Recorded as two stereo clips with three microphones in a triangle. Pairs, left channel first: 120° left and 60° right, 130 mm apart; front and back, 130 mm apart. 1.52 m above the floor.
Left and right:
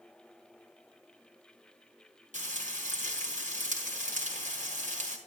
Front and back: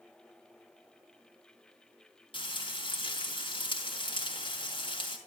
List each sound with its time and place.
2.3 s frying: 50° right, 4 m